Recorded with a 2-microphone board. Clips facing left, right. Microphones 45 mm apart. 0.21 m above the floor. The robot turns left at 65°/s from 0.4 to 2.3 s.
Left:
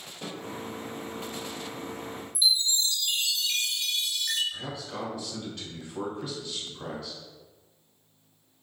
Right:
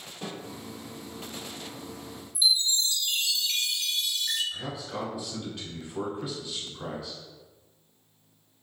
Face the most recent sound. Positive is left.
turn(degrees=-10)  # may be behind; listen again after turning